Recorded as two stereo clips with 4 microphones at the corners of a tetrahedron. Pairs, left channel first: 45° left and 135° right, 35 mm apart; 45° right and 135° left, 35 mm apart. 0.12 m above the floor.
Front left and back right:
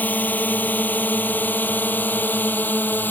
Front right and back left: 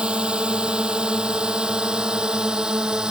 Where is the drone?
75° left; by 3.1 s 70° left.